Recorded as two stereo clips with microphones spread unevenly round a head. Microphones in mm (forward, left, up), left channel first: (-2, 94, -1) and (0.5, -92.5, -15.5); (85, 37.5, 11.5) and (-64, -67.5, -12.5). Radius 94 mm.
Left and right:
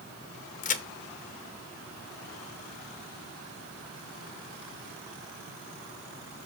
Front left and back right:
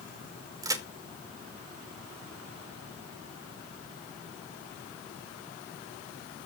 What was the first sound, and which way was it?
A crack, 145° left.